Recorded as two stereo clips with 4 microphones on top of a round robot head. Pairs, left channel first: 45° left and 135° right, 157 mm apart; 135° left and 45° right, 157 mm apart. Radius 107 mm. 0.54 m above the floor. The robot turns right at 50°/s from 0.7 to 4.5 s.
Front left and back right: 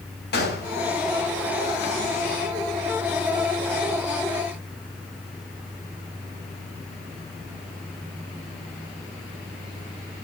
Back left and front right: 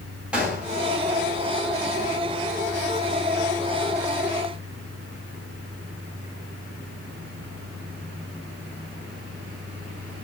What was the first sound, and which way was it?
A gunshot, 40° left.